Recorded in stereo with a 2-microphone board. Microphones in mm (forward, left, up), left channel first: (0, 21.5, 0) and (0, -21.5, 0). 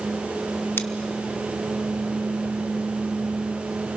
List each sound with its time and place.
0.8 s scissors: 70° left (ahead or behind), 0.9 m